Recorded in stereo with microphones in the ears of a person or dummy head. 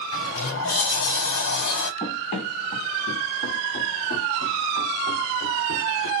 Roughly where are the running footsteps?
Left.